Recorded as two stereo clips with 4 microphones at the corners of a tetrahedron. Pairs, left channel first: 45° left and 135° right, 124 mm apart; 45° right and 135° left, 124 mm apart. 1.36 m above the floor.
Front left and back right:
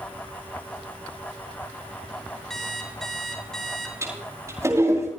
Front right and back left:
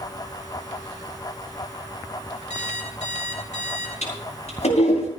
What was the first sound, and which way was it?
An alarm clock, 40° right.